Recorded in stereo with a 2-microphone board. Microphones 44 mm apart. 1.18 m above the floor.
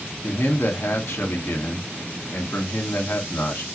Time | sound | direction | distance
0.2 | a man speaking | 65° left (ahead or behind) | 1.2 m